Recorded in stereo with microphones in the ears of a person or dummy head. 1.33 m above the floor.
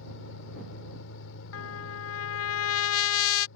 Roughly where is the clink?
I don't hear a clink.